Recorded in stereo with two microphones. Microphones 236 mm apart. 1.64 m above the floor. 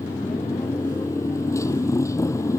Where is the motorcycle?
10° left (ahead or behind).